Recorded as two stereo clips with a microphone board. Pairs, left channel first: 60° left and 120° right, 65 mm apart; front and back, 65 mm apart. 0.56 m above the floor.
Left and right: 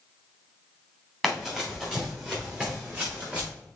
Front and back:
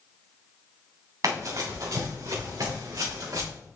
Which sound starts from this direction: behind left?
Running footsteps, at 1.2 s.